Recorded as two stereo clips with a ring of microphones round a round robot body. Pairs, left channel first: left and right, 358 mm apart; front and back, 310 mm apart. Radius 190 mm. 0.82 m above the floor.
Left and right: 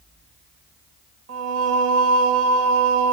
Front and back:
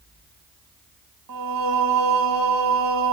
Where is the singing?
140° right, 1.4 m.